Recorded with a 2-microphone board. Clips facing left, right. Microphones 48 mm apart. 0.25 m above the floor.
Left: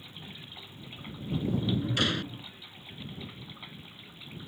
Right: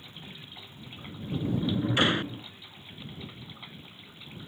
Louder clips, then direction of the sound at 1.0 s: Even; 25° right (ahead or behind).